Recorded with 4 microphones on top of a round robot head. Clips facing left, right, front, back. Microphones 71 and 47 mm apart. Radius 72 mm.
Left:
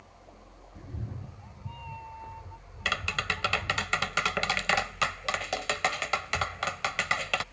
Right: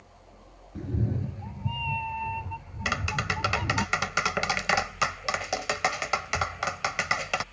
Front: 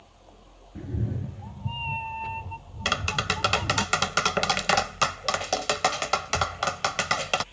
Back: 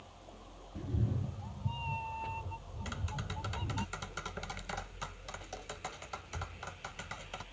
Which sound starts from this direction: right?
A cat meowing, at 0.8 s.